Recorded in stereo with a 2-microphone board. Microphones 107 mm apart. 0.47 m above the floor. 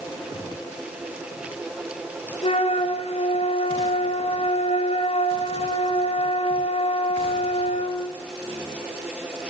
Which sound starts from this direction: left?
A flute, at 2.4 s.